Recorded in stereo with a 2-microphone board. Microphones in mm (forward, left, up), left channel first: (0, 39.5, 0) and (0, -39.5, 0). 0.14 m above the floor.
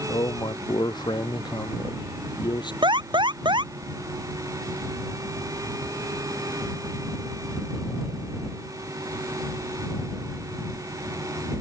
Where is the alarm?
80° right.